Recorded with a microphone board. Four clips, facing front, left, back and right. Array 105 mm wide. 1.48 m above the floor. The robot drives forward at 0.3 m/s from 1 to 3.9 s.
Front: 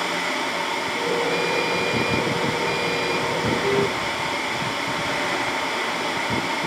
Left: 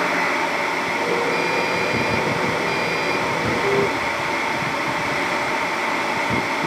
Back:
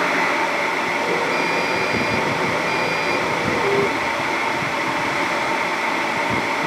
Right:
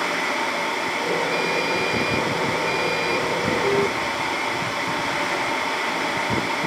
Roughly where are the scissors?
I don't hear scissors.